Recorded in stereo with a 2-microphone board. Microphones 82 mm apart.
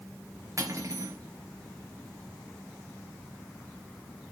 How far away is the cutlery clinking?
About 3.5 m.